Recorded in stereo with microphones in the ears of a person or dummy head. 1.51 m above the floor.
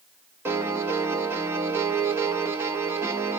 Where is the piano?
15° right (ahead or behind), 0.5 m.